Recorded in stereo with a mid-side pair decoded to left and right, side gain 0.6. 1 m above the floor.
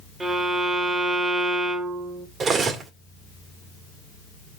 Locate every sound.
0.2 s a violin: 25° right, 1.6 m
2.4 s cutlery clinking: 40° right, 1.6 m